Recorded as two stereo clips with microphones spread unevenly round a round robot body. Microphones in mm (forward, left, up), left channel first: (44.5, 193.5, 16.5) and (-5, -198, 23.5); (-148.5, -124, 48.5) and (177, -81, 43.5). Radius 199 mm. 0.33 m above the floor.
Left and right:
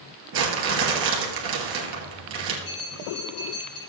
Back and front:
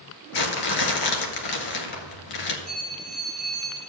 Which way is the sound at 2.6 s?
100° left.